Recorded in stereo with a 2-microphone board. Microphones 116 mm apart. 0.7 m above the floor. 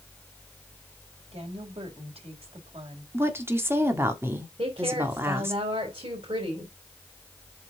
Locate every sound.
1.3 s a woman speaking: 55° right (ahead or behind), 3 m
3.1 s a woman speaking: 20° right (ahead or behind), 1.5 m
4.6 s a woman speaking: 50° right (ahead or behind), 3.5 m